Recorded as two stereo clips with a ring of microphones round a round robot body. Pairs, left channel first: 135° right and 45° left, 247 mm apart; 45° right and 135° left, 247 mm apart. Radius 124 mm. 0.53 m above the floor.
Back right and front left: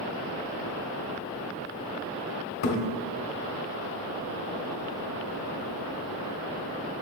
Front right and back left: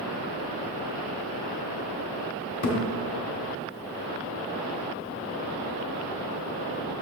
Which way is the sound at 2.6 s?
105° right.